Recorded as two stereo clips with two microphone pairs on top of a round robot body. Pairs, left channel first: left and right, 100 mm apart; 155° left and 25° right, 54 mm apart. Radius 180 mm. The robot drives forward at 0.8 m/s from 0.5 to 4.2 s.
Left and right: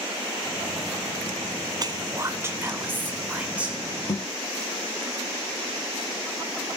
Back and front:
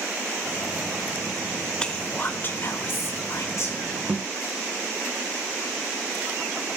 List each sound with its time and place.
1.8 s whispering: 130° right, 0.7 m; by 3.8 s 170° right, 2.0 m
4.1 s a thud: 50° left, 2 m